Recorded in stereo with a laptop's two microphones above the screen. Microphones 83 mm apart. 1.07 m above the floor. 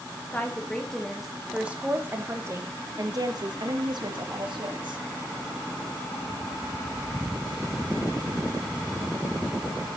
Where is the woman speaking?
15° left (ahead or behind), 1.5 m; by 5.0 s 75° right (ahead or behind), 2 m.